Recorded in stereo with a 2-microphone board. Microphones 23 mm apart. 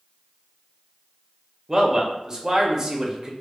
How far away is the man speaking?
About 0.5 m.